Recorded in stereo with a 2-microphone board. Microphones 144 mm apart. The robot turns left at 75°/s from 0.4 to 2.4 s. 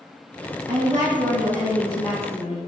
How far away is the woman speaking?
About 1.5 m.